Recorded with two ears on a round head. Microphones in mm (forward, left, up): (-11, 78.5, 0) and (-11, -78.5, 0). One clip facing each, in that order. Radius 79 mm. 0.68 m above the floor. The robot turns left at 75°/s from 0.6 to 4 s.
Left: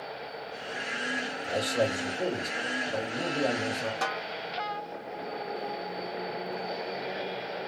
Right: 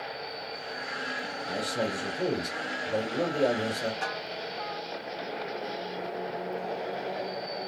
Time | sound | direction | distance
1.4 | a man speaking | 40° left | 1.9 m
4.0 | a snare drum | 75° left (ahead or behind) | 1.0 m